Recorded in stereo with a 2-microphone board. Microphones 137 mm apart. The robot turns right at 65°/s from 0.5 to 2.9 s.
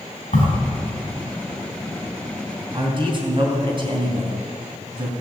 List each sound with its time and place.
0.3 s a crack: 70° left (ahead or behind), 4 m
2.7 s a man speaking: 30° right (ahead or behind), 3.5 m; by 5.1 s 40° right (ahead or behind), 3.5 m